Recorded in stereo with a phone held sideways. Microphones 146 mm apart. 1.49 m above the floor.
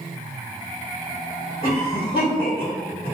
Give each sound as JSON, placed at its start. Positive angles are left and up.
{"t": 1.6, "sound": "a cough", "side_deg": -55, "distance_m": 1.5}